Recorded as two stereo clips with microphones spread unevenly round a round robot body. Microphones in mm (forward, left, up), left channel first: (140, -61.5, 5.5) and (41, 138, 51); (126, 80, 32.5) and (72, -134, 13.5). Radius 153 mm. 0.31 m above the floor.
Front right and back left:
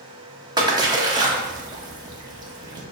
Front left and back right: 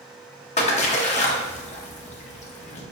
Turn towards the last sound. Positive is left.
turn(degrees=40)